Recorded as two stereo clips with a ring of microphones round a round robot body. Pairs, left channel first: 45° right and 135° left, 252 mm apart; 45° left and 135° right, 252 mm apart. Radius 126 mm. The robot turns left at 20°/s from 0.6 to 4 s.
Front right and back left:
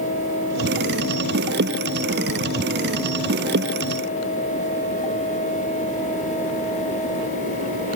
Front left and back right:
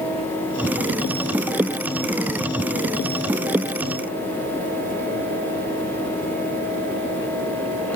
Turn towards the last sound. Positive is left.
No sound to turn to.